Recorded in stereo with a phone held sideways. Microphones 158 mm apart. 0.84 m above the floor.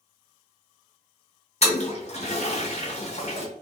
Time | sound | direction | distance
1.6 | a toilet flushing | 45° left (ahead or behind) | 0.8 m